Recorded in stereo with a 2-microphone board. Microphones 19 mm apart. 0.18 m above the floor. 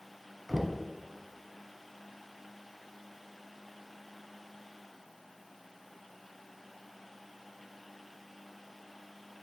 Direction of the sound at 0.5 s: 15° right (ahead or behind).